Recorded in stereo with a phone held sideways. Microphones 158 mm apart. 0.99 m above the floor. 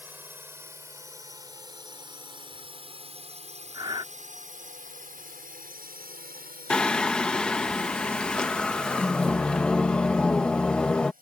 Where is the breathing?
30° right (ahead or behind).